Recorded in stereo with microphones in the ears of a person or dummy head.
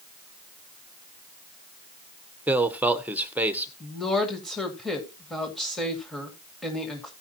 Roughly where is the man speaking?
Centre.